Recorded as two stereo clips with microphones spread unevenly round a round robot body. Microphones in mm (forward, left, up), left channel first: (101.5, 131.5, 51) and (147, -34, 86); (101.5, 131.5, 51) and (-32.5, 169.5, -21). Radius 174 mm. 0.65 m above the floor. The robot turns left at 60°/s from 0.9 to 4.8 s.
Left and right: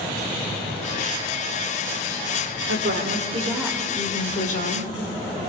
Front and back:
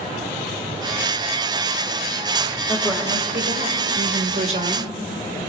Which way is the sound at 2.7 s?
105° right.